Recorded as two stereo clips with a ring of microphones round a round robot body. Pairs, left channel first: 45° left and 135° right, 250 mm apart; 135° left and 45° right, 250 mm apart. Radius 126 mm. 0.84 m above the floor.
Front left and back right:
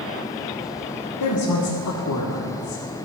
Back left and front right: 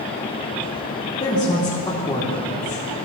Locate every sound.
1.2 s a woman speaking: 60° left, 1.8 m